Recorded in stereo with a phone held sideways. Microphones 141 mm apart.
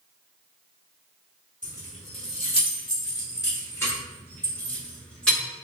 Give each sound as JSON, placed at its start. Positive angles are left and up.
{"t": 1.6, "sound": "keys jangling", "side_deg": 60, "distance_m": 1.2}